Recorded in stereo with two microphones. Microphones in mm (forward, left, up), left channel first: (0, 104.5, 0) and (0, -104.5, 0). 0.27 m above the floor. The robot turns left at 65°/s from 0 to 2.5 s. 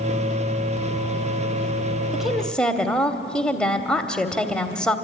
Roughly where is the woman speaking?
Centre.